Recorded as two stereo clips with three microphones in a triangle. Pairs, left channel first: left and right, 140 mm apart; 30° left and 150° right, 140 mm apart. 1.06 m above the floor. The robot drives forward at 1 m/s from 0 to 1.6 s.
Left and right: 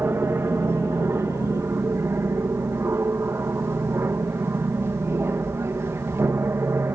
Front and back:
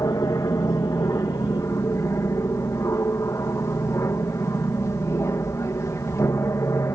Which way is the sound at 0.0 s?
25° right.